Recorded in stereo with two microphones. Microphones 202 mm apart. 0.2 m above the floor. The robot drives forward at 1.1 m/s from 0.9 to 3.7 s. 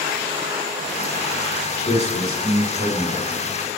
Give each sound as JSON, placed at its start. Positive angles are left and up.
{"t": 1.9, "sound": "a man speaking", "side_deg": 35, "distance_m": 2.5}